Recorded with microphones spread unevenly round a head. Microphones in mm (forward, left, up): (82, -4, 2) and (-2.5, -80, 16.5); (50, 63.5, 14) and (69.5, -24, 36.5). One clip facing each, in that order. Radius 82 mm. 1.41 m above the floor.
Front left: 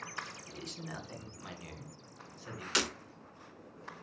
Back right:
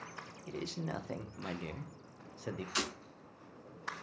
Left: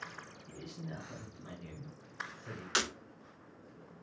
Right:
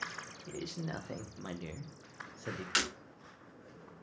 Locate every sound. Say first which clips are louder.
0.5 s a man speaking: back right 5 dB, right 6 dB; 100° right, 1.5 m
2.8 s breaking glass: front left 5 dB, left 1 dB; 40° left, 2.5 m